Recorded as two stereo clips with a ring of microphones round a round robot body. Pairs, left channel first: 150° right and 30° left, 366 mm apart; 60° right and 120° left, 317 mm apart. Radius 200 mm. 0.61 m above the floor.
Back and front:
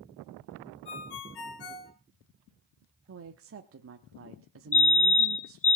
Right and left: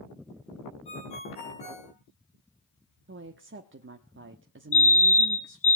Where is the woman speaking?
75° left, 1.2 m.